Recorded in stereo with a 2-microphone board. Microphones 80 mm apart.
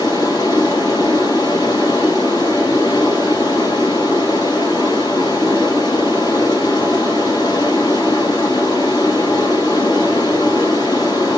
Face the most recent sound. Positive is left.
turn(degrees=60)  # may be behind; listen again after turning